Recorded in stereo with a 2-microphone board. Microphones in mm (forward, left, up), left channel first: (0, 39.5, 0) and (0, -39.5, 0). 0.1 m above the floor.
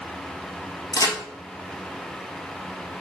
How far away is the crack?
About 1.3 m.